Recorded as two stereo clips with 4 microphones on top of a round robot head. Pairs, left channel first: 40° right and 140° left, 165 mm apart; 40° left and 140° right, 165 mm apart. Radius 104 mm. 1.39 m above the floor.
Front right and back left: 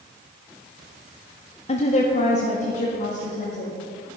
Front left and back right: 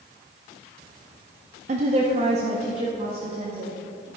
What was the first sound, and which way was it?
A woman speaking, 90° right.